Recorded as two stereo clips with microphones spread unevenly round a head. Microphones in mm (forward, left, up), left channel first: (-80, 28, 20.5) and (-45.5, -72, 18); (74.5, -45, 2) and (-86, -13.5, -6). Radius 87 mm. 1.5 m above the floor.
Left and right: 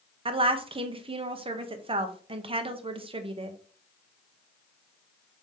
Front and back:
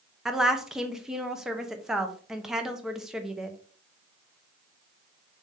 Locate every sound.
0.2 s a woman speaking: 105° right, 0.8 m